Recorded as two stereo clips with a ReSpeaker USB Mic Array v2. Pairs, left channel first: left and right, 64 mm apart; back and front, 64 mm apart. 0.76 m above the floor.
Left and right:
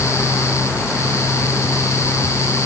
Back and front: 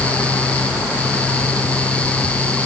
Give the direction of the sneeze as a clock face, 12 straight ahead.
No sneeze in this recording.